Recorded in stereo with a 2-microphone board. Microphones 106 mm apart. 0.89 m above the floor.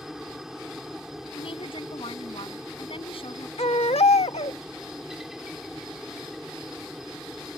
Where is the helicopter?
5° right (ahead or behind).